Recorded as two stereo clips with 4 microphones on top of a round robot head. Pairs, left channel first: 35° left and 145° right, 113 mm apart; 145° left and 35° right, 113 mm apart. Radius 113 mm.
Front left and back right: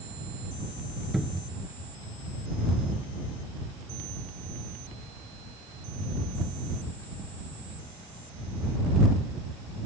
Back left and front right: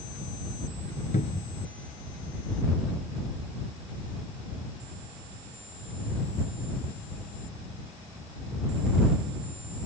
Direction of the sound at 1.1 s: 125° left.